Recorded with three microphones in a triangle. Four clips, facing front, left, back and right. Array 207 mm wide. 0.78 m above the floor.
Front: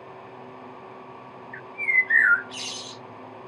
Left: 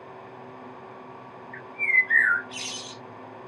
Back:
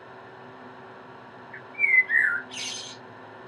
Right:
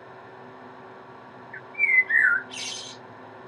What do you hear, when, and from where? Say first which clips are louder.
1.5 s a bird: right 1 dB, back 1 dB; 55° right, 2.5 m